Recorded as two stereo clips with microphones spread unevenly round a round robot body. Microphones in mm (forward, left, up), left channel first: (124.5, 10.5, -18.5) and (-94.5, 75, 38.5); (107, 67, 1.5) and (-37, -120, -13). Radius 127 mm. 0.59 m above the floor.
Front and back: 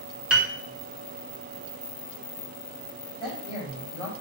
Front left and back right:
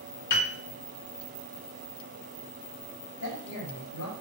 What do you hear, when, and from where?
0.3 s a piano: 80° left, 0.7 m
3.2 s a man speaking: 55° left, 1.3 m